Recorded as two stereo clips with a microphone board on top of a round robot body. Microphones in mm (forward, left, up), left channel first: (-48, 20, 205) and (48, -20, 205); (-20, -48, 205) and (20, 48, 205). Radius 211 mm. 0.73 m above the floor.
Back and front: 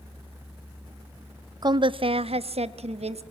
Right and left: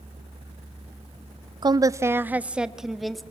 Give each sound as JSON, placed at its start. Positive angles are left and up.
{"t": 1.6, "sound": "a woman speaking", "azimuth_deg": 25, "distance_m": 0.8}